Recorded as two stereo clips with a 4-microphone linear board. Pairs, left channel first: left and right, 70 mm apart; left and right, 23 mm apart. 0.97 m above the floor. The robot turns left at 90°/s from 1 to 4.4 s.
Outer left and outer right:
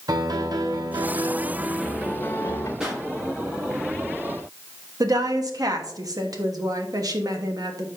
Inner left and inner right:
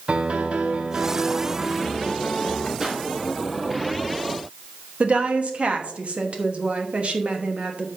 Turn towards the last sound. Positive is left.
turn(degrees=-55)  # may be behind; listen again after turning